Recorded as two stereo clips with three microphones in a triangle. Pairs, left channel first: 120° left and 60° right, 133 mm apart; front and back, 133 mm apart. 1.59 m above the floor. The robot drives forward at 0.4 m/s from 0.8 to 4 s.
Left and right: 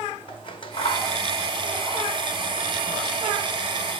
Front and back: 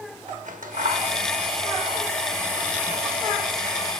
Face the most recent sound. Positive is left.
turn(degrees=175)